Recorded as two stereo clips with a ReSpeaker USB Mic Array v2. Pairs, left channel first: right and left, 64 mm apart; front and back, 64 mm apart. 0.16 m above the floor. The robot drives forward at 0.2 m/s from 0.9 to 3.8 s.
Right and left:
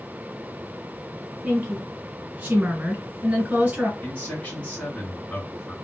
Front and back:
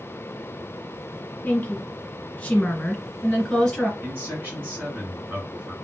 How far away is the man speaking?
About 2.0 m.